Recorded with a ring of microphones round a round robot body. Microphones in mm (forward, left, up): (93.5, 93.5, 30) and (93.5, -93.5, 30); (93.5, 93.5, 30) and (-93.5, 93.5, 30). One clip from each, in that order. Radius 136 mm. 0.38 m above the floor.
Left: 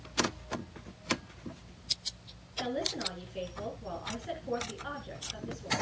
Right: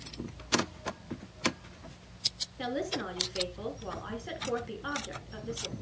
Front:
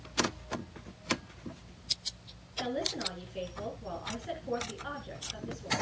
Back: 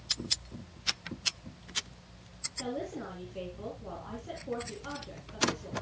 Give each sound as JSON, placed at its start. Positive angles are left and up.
{"t": 2.6, "sound": "a woman speaking", "azimuth_deg": -45, "distance_m": 5.0}